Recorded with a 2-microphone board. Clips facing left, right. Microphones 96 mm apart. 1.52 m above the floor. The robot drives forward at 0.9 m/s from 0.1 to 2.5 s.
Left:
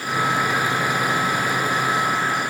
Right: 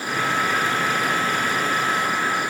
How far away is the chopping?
I don't hear chopping.